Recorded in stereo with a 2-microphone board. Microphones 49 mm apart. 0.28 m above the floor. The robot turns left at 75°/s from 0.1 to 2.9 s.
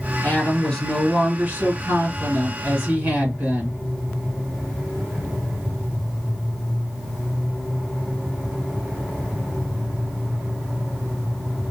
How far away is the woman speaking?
About 2 m.